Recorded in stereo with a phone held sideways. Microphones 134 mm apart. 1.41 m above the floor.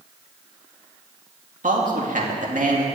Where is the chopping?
I don't hear chopping.